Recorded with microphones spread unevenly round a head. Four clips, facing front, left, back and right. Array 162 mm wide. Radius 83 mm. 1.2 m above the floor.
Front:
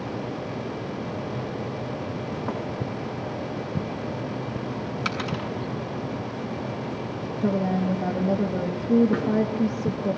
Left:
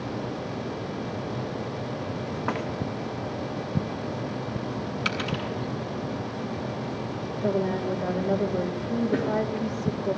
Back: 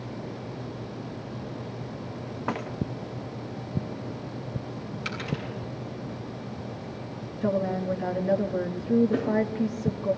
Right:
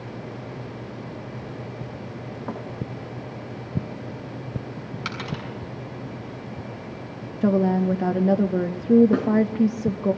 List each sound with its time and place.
5.0 s a dropped coin: 5° right, 5.5 m
7.4 s a woman speaking: 65° right, 1.4 m
9.1 s a snare drum: 35° right, 5.5 m